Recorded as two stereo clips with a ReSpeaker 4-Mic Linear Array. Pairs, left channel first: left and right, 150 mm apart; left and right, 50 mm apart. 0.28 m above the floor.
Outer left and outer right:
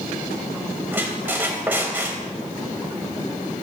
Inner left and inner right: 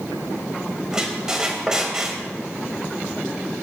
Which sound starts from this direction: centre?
A squeak, at 0.9 s.